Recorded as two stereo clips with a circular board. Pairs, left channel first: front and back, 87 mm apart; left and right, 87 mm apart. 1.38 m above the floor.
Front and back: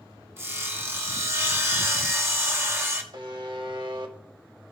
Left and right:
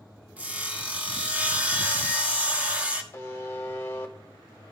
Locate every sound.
0.4 s sawing: 145° right, 0.9 m
3.1 s a buzzer: 155° left, 1.0 m